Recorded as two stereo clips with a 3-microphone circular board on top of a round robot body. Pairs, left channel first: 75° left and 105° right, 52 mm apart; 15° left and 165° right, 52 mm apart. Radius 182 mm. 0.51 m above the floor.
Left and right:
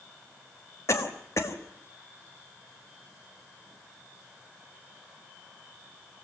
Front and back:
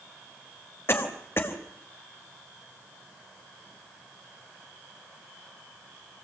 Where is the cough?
55° left, 4.5 m.